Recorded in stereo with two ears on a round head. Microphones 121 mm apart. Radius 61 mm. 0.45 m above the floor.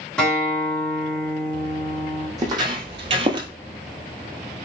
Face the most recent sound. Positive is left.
turn(degrees=-30)  # may be behind; listen again after turning